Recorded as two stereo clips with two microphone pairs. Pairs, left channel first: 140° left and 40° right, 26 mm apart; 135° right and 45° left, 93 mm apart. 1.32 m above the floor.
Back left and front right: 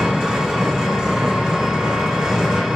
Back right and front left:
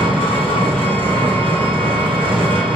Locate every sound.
0.0 s an engine running: 30° left, 3 m